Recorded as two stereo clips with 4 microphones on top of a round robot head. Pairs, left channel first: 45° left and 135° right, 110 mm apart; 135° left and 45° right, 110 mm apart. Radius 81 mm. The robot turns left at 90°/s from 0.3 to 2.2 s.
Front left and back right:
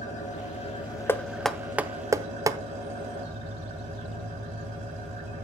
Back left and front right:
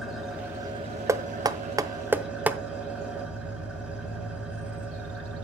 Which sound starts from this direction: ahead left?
An engine running, at 0.0 s.